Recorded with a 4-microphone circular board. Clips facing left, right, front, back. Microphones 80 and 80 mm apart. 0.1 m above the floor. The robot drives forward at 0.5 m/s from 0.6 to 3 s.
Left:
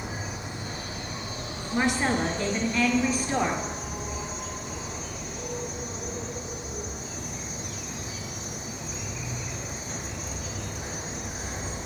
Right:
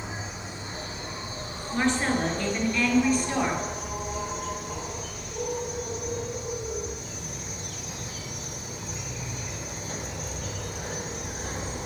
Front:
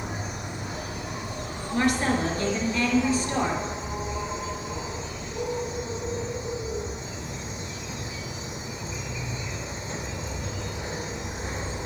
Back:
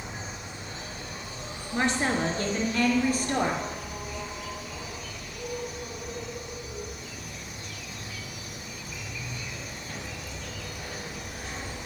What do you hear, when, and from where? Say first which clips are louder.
0.0 s an insect: left 1 dB, front 5 dB; 25° right, 1.8 m; by 11.9 s 65° right, 1.0 m
1.7 s a woman speaking: even, front 2 dB; 155° left, 1.7 m; by 3.6 s 165° left, 2 m